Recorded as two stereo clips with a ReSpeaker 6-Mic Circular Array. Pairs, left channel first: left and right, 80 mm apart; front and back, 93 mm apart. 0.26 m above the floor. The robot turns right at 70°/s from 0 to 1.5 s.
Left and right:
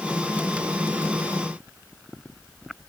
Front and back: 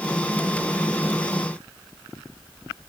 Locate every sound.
Only background noise.